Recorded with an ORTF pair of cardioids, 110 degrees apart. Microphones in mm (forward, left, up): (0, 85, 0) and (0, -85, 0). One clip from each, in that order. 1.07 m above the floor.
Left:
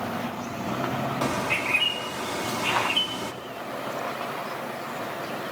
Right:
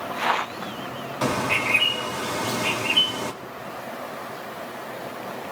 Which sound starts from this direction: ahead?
A bird, at 1.2 s.